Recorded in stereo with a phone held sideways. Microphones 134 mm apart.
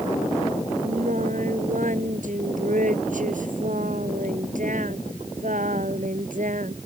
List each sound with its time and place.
0.8 s singing: 75° right (ahead or behind)